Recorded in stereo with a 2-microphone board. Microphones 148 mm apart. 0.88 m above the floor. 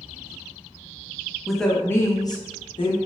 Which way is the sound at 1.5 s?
Centre (ahead or behind).